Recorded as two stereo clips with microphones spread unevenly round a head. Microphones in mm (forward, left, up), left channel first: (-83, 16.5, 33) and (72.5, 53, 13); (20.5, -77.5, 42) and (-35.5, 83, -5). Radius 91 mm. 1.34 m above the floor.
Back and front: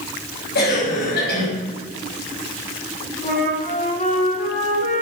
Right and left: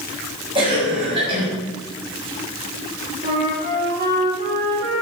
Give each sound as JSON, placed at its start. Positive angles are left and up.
{"t": 0.6, "sound": "a cough", "azimuth_deg": 170, "distance_m": 7.0}
{"t": 3.2, "sound": "a flute", "azimuth_deg": 155, "distance_m": 9.5}